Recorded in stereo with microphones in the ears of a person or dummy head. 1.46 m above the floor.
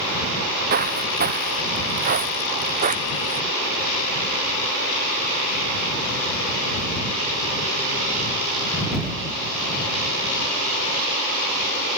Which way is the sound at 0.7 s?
45° right (ahead or behind).